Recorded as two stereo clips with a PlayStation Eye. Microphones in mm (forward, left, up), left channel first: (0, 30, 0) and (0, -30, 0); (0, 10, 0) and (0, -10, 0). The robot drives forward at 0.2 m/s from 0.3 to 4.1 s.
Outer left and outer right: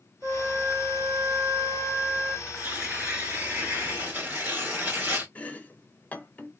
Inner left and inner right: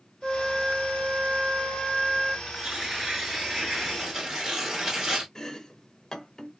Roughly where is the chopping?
Left.